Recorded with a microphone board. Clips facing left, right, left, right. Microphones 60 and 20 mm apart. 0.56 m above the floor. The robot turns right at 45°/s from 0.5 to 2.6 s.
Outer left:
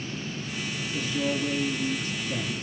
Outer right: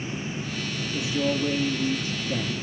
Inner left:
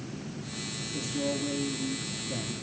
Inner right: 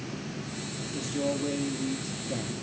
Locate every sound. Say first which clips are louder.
0.9 s a man speaking: outer right 3 dB, inner right 2 dB; 10° right (ahead or behind), 0.6 m; by 2.5 s 25° right (ahead or behind), 0.6 m